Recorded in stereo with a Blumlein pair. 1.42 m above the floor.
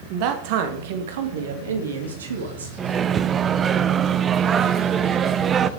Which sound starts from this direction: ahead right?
A man speaking, at 0.1 s.